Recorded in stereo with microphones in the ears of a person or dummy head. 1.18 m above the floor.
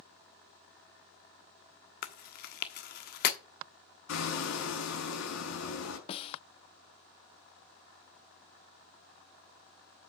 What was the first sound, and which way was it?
Chewing, 45° left (ahead or behind).